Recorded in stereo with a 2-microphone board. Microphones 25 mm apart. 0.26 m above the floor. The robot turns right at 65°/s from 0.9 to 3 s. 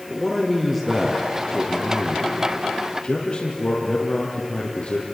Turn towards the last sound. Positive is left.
turn(degrees=120)